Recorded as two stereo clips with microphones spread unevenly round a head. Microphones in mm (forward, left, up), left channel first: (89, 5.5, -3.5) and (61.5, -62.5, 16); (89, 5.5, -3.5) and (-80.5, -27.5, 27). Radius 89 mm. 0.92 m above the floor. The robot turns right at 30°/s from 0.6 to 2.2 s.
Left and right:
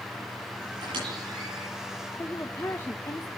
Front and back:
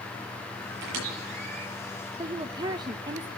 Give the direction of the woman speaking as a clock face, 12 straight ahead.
8 o'clock.